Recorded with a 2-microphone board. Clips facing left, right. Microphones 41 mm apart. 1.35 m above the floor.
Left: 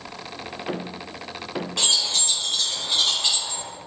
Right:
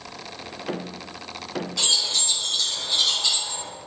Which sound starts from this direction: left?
Keys jangling, at 1.8 s.